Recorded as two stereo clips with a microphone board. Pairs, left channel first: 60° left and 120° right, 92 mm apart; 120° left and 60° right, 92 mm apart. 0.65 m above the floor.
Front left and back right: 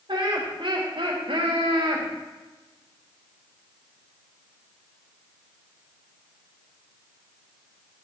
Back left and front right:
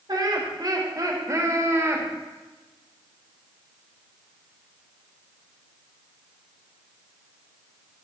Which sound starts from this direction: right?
Laughter, at 0.1 s.